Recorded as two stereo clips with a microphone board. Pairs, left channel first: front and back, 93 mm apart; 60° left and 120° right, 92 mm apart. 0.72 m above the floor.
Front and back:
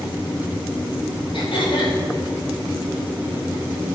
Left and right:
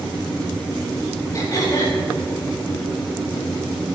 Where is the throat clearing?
10° left, 5.5 m.